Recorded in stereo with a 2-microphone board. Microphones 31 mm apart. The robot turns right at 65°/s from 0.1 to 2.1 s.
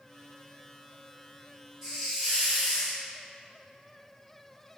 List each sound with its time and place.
1.8 s a hiss: 15° right (ahead or behind), 1.2 m; by 3.0 s centre (ahead or behind), 1.2 m